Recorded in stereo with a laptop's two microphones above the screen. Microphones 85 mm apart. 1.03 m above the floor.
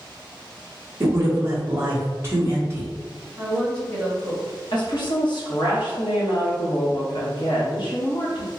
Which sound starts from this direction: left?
A woman speaking, at 4.7 s.